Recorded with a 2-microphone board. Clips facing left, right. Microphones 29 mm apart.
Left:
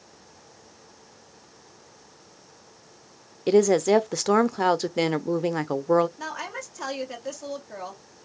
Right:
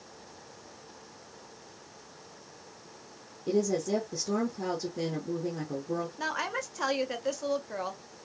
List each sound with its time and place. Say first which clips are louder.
3.5 s a woman speaking: left 9 dB; 80° left, 0.7 m
6.2 s a woman speaking: right 1 dB; 15° right (ahead or behind), 1.4 m